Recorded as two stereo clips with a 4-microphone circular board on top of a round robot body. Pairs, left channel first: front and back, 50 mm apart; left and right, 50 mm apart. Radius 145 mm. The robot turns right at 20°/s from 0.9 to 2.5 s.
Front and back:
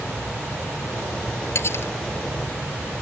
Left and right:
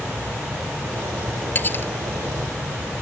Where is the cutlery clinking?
35° left; by 1.9 s 45° left.